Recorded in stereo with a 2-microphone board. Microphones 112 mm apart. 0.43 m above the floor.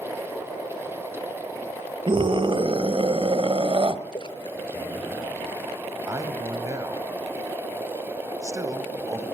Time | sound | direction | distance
2.1 | a scream | 50° right (ahead or behind) | 1.6 m
4.1 | a splash | 50° left (ahead or behind) | 1.3 m
6.1 | a man speaking | 30° right (ahead or behind) | 1.9 m